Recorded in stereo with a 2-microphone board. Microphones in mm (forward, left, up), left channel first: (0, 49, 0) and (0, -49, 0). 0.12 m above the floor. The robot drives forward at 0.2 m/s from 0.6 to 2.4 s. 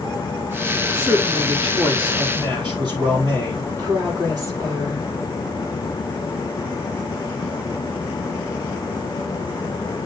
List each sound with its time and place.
0.9 s a man speaking: 55° right (ahead or behind), 4 m; by 3.7 s 50° right (ahead or behind), 4.5 m
3.8 s a woman speaking: 40° right (ahead or behind), 6.5 m